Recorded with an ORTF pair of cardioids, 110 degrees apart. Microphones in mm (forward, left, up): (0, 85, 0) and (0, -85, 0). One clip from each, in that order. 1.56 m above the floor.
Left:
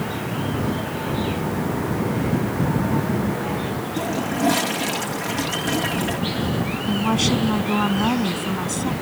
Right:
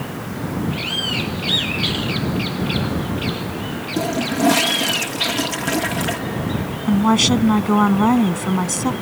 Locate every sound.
4.0 s a toilet flushing: 25° right
6.9 s a woman speaking: 40° right